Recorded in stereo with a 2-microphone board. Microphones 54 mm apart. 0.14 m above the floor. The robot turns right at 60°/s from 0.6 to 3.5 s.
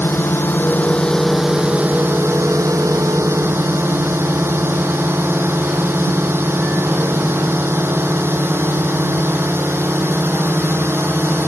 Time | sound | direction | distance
0.0 | a drone | 135° left | ?